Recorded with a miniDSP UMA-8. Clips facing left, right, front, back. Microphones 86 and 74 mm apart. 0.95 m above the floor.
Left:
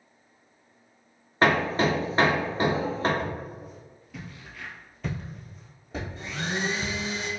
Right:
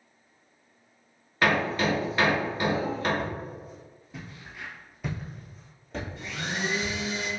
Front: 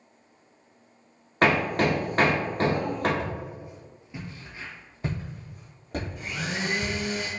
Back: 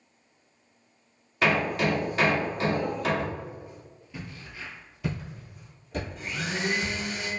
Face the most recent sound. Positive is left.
turn(degrees=80)